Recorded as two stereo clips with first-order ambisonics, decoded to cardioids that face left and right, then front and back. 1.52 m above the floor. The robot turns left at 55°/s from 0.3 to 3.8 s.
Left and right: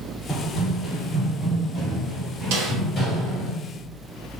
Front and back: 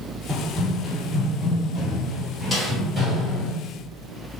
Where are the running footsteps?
60° left, 1.7 m; by 3.5 s 100° left, 1.7 m.